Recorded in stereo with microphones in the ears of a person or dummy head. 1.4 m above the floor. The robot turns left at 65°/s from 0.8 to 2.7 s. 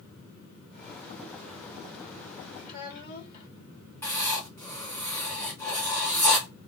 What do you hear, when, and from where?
2.6 s a child speaking: 55° left (ahead or behind), 1.9 m
4.0 s writing: 15° left (ahead or behind), 1.9 m